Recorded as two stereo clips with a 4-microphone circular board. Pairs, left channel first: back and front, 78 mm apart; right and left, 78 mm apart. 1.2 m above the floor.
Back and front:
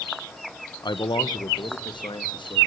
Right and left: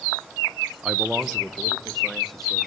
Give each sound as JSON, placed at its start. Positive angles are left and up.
{"t": 0.8, "sound": "a man speaking", "azimuth_deg": 165, "distance_m": 1.0}